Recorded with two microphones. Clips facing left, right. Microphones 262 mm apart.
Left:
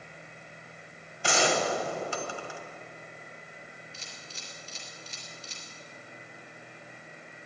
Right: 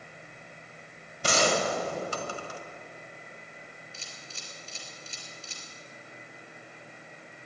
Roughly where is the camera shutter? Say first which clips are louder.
Even; right.